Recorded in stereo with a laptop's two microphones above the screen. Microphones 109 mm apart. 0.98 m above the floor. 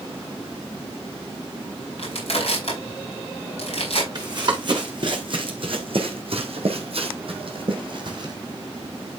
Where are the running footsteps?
40° right (ahead or behind), 3.5 m.